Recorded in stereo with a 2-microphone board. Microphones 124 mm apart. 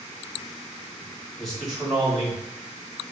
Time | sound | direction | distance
1.4 | a man speaking | 5° left (ahead or behind) | 1.5 m